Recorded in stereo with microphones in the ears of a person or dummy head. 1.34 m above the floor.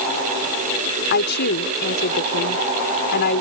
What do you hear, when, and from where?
1.1 s a woman speaking: 50° left (ahead or behind)